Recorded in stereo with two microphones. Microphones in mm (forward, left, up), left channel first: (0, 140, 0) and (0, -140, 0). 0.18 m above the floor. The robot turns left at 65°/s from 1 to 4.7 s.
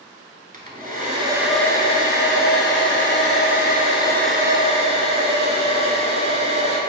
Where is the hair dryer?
145° right, 0.7 m; by 6.8 s 25° right, 0.7 m.